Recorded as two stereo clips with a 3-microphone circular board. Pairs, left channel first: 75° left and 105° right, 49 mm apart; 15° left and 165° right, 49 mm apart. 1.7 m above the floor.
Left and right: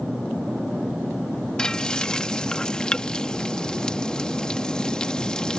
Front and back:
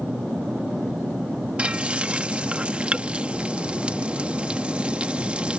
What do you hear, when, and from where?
1.6 s frying: 140° left